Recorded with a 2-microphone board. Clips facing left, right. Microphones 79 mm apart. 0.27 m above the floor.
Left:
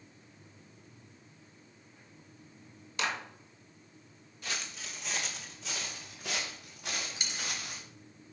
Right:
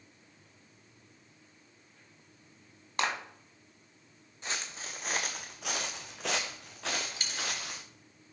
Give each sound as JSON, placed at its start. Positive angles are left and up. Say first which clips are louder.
{"t": 3.0, "sound": "a clap", "louder": "right 2 dB", "side_deg": -45, "distance_m": 1.7}
{"t": 4.4, "sound": "footsteps", "louder": "right 1 dB", "side_deg": -25, "distance_m": 1.2}
{"t": 7.2, "sound": "a dropped coin", "louder": "right 2 dB", "side_deg": 5, "distance_m": 1.9}